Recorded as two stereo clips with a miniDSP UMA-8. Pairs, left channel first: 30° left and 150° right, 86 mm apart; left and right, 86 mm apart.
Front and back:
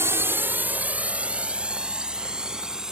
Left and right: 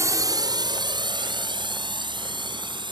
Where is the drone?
110° right; by 2.9 s 65° right.